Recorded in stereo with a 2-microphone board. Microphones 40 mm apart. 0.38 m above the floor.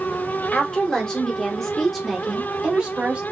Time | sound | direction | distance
0.5 | a woman speaking | 30° left (ahead or behind) | 1.7 m